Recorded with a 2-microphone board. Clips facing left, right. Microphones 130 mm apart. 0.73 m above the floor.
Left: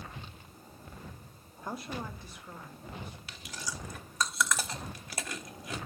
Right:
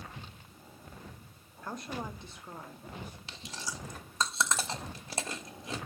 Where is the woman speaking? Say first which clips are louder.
Even; 15° left (ahead or behind), 0.5 m; by 3.2 s 40° right (ahead or behind), 1.6 m.